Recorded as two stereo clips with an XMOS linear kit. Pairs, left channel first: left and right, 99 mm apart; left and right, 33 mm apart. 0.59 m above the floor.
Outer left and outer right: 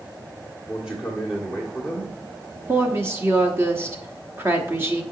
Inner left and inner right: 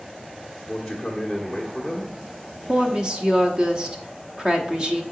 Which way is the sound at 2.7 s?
25° right (ahead or behind).